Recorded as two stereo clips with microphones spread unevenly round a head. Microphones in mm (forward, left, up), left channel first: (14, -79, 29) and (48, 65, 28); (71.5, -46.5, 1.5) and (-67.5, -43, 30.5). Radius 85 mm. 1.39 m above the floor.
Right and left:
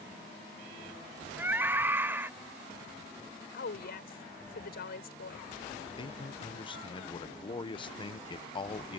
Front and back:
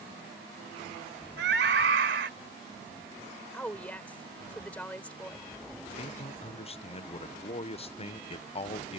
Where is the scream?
155° left.